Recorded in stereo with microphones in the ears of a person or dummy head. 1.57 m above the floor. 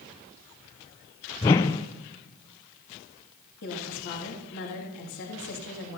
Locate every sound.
1.4 s a whoosh: 10° left (ahead or behind), 0.5 m
3.6 s a woman speaking: 55° left (ahead or behind), 3.5 m